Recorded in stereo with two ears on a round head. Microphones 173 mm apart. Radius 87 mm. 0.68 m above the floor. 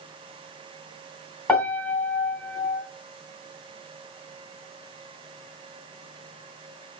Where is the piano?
5° left (ahead or behind), 2.5 m.